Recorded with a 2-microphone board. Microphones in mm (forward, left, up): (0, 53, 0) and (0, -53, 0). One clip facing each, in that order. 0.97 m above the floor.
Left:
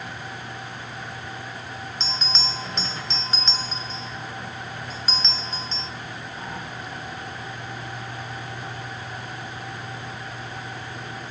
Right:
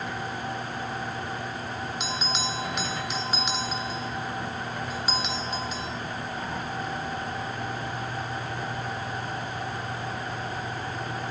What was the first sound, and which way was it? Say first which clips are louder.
A bell: right 1 dB; 10° right (ahead or behind).